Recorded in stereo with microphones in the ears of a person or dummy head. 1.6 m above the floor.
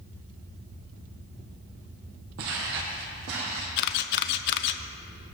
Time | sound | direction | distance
2.4 | footsteps | 55° right (ahead or behind) | 3 m
3.8 | a camera shutter | 55° left (ahead or behind) | 0.7 m